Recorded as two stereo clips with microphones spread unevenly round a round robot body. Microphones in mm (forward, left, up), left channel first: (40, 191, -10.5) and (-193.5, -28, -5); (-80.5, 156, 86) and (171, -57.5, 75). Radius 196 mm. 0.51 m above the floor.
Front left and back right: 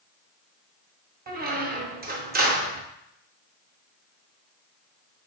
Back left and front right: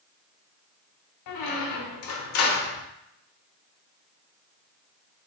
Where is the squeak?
160° left, 0.6 m.